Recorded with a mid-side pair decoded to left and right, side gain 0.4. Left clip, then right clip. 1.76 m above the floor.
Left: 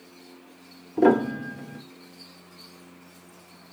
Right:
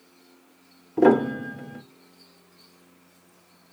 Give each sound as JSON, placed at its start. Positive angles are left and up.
{"t": 1.0, "sound": "a piano", "azimuth_deg": -20, "distance_m": 0.6}